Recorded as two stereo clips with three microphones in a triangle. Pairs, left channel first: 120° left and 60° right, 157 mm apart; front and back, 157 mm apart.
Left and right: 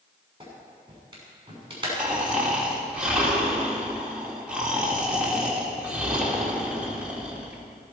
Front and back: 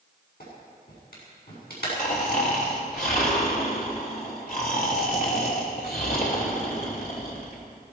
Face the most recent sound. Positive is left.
turn(degrees=25)